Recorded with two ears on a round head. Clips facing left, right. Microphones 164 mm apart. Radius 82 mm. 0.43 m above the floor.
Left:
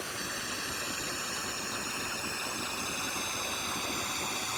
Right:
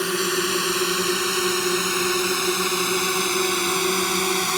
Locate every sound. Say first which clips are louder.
0.0 s a drone: right 17 dB; 75° right (ahead or behind); by 4.6 s 70° right (ahead or behind)